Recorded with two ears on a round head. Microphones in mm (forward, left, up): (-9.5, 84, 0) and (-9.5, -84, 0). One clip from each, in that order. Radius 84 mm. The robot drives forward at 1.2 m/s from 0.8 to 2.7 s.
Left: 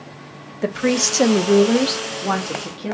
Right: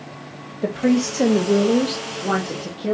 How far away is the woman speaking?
About 1.0 m.